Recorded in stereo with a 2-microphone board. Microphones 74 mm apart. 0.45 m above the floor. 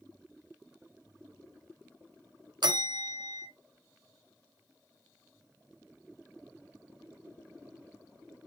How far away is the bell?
About 0.6 m.